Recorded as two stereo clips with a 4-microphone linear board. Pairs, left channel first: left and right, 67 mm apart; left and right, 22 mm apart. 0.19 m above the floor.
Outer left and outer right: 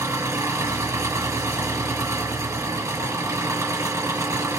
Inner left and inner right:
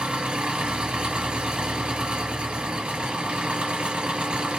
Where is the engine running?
50° right (ahead or behind), 2.5 m.